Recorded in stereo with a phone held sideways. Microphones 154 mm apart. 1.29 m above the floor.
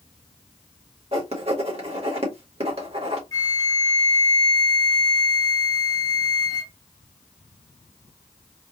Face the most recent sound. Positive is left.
turn(degrees=25)  # may be behind; listen again after turning